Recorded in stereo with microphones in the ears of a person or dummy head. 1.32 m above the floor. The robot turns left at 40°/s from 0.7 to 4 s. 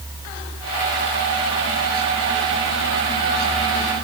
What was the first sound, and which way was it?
Only background noise.